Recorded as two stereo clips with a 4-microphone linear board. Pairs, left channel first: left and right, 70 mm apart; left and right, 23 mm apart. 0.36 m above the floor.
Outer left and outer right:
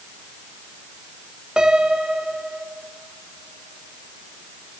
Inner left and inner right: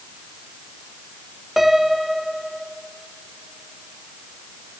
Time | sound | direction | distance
1.6 | a piano | 10° right (ahead or behind) | 0.9 m